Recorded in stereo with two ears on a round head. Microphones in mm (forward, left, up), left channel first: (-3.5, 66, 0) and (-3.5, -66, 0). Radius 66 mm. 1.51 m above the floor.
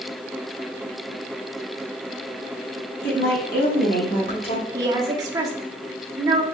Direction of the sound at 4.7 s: 25° right (ahead or behind).